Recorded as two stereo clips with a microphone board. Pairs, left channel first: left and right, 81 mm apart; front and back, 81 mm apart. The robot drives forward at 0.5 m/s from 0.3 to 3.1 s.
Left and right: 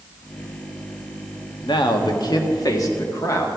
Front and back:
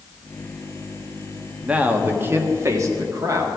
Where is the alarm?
I don't hear an alarm.